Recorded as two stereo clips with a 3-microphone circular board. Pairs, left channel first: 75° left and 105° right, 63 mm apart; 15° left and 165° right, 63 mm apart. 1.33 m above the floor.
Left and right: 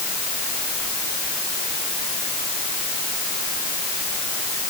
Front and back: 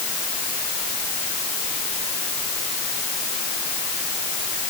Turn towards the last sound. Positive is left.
No sound to turn to.